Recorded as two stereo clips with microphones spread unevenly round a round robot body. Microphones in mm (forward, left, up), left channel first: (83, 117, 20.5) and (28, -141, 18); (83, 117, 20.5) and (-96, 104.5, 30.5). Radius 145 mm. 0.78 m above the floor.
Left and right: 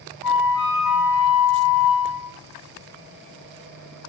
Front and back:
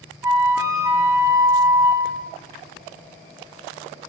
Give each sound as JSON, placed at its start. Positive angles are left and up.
{"t": 0.2, "sound": "a flute", "azimuth_deg": 110, "distance_m": 3.0}